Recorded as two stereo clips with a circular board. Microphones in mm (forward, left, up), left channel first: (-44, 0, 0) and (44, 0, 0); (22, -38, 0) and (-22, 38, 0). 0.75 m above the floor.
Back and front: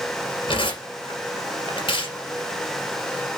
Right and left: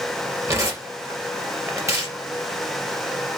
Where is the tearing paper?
175° left, 2.5 m.